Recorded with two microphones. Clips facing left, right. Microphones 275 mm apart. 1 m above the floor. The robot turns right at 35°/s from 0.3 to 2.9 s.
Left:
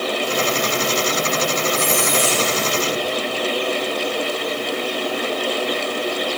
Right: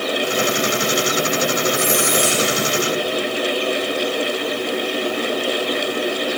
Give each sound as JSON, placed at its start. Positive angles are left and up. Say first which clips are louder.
{"t": 1.7, "sound": "a squeak", "louder": "right 2 dB", "azimuth_deg": -70, "distance_m": 5.5}